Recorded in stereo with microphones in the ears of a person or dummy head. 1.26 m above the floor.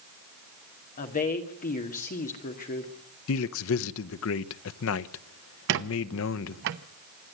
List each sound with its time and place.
1.0 s a woman speaking: 45° left (ahead or behind), 2 m
3.3 s a man speaking: 80° left, 0.7 m
5.7 s a squeak: 55° right (ahead or behind), 0.8 m